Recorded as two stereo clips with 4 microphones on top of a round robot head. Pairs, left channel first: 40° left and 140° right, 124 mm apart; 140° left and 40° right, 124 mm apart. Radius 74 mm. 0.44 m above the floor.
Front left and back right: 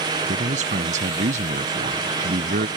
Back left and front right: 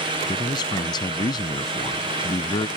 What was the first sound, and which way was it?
A man speaking, 165° right.